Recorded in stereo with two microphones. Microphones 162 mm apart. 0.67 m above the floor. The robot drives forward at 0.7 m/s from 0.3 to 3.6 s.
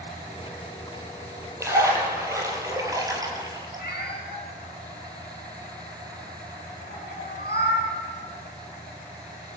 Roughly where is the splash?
Centre.